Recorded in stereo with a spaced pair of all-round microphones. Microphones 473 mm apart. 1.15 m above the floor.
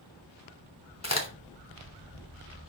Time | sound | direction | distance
1.0 | a crack | 30° left (ahead or behind) | 3.5 m